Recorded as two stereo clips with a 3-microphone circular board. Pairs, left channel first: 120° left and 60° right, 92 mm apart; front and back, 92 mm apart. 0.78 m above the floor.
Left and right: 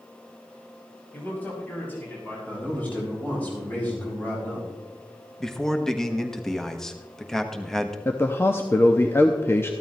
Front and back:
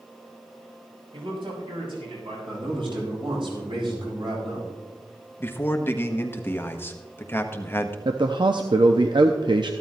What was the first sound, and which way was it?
A man speaking, 170° right.